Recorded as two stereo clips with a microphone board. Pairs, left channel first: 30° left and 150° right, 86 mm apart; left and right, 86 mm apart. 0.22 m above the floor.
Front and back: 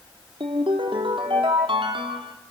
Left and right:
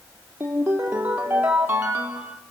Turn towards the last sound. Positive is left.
turn(degrees=-160)